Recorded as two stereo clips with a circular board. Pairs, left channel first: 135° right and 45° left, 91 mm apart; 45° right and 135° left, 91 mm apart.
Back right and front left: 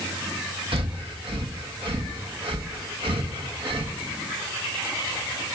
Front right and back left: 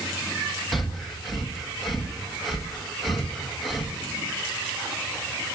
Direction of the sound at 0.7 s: 45° left.